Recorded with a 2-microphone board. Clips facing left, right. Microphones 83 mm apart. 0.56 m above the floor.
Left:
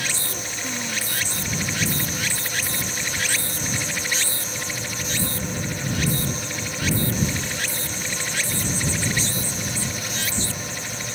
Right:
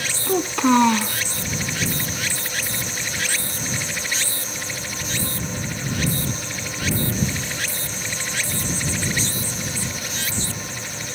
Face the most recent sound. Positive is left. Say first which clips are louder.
# right 14 dB
turn(degrees=-85)